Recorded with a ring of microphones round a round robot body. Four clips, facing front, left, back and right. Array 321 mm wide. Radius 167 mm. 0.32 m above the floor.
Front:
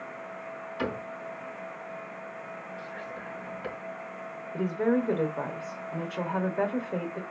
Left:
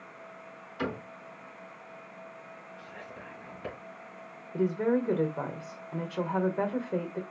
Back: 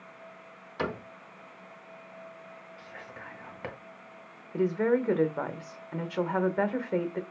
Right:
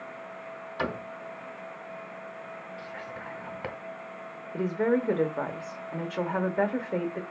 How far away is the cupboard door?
About 2.5 m.